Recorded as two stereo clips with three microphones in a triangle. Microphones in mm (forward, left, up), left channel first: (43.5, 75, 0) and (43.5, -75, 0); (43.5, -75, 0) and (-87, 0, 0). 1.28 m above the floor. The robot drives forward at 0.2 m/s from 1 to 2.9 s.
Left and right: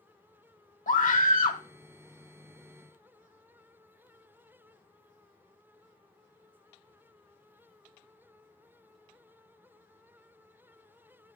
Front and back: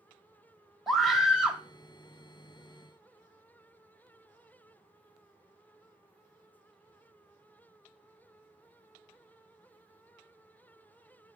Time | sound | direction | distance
0.9 | a scream | 60° left | 0.9 m